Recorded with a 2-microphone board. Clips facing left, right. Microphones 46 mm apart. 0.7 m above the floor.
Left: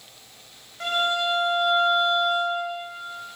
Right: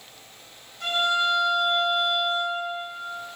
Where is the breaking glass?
No breaking glass in this recording.